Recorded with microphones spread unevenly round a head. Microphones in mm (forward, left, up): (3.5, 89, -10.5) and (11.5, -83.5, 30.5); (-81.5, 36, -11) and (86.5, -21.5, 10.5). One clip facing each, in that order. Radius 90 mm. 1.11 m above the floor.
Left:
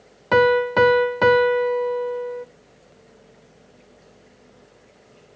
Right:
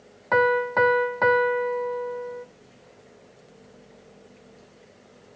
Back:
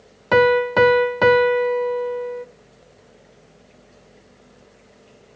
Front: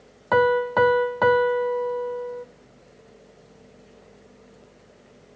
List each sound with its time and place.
0.3 s a piano: 125° left, 0.5 m